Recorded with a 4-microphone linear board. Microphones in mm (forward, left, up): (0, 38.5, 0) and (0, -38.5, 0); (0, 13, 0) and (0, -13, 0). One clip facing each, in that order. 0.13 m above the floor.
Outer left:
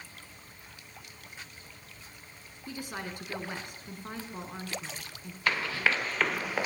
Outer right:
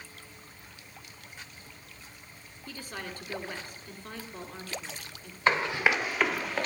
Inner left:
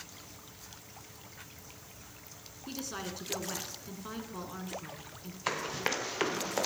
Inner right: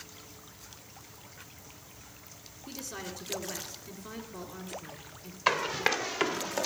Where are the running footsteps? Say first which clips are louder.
Outer right 3 dB, inner right 6 dB; 25° right (ahead or behind), 1.4 m; by 6.7 s 10° left (ahead or behind), 1.2 m.